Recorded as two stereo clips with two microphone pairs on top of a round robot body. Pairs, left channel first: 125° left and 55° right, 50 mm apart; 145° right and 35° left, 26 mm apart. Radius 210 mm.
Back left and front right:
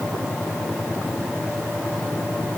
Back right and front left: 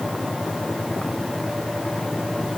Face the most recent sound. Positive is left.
No sound to turn to.